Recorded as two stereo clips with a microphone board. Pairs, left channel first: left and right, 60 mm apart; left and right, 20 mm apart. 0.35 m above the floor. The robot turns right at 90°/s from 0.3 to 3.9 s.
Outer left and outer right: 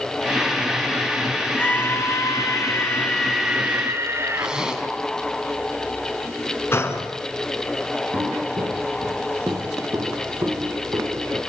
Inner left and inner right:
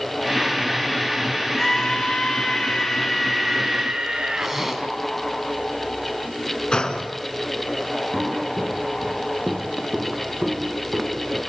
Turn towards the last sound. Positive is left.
turn(degrees=-40)  # may be behind; listen again after turning